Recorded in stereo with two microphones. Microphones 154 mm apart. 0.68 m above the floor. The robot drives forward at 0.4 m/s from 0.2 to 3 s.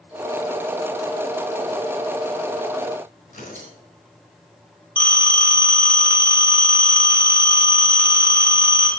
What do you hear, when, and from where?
3.3 s tearing paper: 55° left (ahead or behind), 3.5 m
5.0 s a phone ringing: 35° left (ahead or behind), 2.5 m